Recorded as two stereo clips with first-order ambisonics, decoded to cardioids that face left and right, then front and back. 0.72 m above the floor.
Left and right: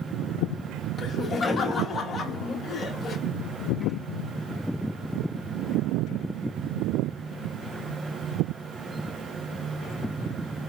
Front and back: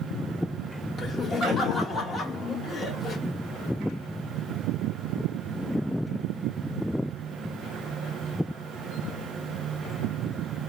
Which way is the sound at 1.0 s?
55° left.